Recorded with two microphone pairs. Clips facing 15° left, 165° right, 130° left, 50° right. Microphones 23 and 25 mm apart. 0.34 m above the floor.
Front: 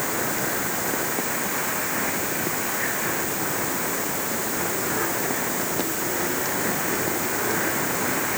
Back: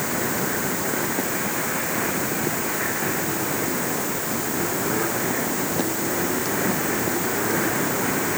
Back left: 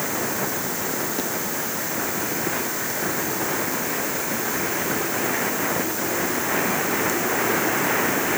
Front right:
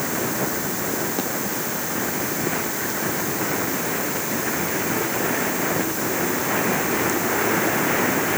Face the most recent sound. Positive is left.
No sound to turn to.